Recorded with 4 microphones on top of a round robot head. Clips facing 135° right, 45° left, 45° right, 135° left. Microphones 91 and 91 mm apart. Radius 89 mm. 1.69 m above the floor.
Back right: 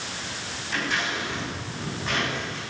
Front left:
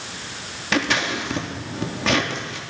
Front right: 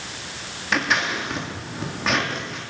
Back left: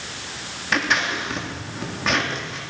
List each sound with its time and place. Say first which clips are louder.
0.7 s scissors: front left 6 dB, even; 45° left, 3.5 m